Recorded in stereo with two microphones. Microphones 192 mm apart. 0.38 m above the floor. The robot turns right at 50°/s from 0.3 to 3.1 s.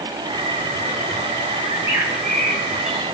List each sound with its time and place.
1.6 s a bird: 25° right, 3 m; by 3.0 s 45° left, 3 m